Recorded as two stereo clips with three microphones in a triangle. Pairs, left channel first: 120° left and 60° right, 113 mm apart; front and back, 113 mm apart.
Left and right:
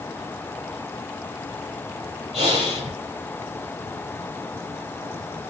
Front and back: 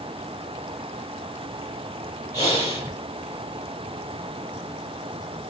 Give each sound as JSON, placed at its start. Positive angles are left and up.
{"t": 2.3, "sound": "breathing", "azimuth_deg": -55, "distance_m": 6.0}